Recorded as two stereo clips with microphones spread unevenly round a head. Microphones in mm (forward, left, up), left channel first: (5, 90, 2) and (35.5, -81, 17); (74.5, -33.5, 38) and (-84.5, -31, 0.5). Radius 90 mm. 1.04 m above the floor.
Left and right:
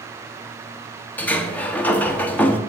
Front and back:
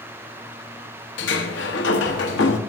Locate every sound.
1.2 s a sliding door: 20° left, 1.1 m